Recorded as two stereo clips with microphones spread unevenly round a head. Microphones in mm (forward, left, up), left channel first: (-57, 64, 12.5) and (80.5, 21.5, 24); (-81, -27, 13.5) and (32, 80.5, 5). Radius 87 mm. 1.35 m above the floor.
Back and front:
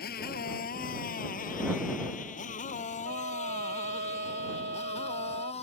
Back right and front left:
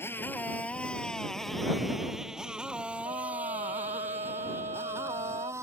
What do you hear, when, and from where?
0.0 s a motorcycle: 150° left; by 5.6 s 115° left
3.0 s a trumpet: 15° right